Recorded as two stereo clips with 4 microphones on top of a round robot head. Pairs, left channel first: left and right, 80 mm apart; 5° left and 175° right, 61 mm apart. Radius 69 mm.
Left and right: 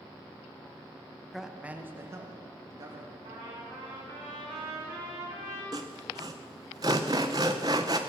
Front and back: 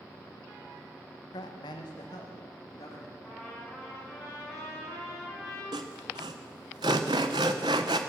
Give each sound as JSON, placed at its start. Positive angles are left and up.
{"t": 1.3, "sound": "a man speaking", "azimuth_deg": 0, "distance_m": 1.0}
{"t": 3.2, "sound": "a trumpet", "azimuth_deg": -90, "distance_m": 5.0}
{"t": 5.7, "sound": "sawing", "azimuth_deg": -145, "distance_m": 0.6}